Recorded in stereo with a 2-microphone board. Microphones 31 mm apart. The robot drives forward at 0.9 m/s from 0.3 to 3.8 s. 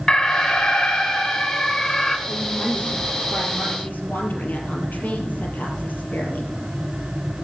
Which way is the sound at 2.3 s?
55° left (ahead or behind).